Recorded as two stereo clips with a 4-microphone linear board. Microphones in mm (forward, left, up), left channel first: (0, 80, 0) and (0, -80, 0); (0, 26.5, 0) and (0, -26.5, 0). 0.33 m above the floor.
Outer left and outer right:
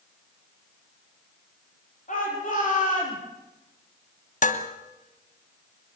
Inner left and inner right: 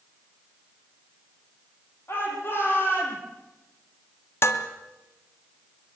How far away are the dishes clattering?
About 1.7 m.